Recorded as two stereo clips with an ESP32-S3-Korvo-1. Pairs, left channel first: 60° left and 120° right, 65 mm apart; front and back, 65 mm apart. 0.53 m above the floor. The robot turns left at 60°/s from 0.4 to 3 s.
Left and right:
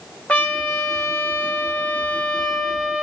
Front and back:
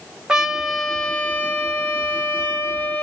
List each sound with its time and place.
0.3 s a trumpet: 110° left, 1.0 m; by 3.0 s 45° right, 1.0 m